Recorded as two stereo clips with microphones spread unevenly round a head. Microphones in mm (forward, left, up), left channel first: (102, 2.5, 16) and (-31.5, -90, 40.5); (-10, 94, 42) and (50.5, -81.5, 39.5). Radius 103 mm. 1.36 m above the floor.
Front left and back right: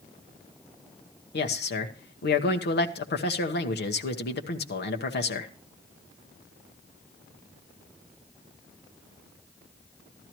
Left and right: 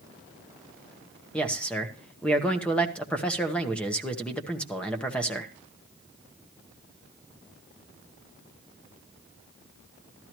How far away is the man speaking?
About 1.2 m.